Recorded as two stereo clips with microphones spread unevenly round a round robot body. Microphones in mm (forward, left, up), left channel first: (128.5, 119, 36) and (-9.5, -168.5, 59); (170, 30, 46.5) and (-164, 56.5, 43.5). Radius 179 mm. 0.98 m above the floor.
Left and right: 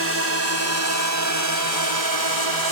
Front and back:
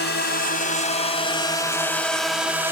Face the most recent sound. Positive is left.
turn(degrees=-100)